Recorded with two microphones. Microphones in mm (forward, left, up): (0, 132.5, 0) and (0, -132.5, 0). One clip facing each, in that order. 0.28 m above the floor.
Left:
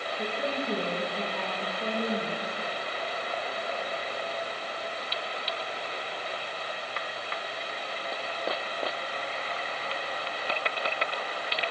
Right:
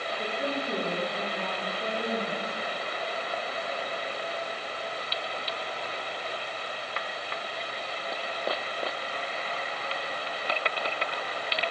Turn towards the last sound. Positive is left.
turn(degrees=55)  # may be behind; listen again after turning